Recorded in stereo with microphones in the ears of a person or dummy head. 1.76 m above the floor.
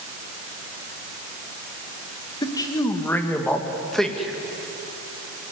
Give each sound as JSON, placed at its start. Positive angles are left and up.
{"t": 2.4, "sound": "a man speaking", "side_deg": 25, "distance_m": 2.0}